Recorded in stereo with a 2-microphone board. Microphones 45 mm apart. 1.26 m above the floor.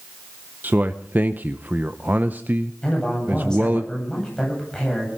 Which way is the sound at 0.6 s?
40° right (ahead or behind).